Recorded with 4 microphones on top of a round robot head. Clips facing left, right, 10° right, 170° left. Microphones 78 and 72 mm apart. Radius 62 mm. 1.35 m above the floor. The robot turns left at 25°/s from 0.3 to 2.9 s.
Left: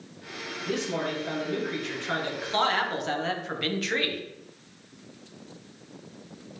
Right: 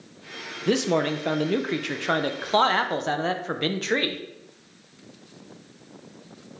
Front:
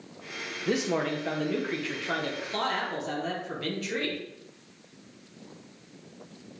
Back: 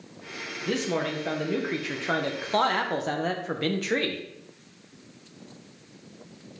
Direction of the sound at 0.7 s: 85° right.